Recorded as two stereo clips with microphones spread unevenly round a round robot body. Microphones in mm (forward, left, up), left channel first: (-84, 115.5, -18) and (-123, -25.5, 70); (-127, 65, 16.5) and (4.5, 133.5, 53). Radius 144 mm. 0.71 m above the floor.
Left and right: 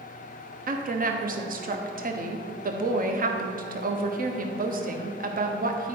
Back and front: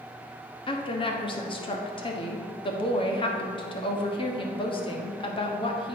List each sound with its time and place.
0.7 s a woman speaking: 145° right, 1.1 m